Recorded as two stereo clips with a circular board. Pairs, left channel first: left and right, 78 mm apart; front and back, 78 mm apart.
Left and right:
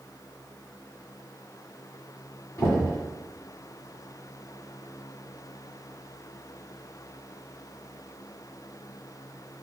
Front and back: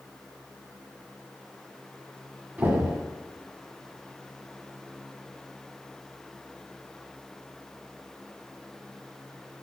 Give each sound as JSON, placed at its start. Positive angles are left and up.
{"t": 2.6, "sound": "knocking", "azimuth_deg": 125, "distance_m": 1.6}